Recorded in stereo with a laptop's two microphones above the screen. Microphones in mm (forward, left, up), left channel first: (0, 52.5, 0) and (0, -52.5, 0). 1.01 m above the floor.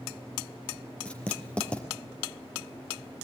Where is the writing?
10° left (ahead or behind), 4.5 m.